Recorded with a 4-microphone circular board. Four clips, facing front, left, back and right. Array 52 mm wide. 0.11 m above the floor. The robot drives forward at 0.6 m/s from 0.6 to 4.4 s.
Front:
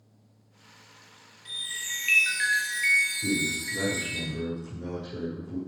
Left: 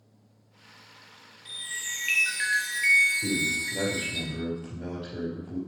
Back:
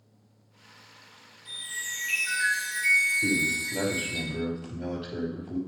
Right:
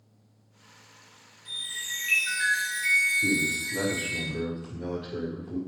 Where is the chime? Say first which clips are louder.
Even, even; 30° left, 2.5 m; by 4.2 s 75° left, 1.9 m.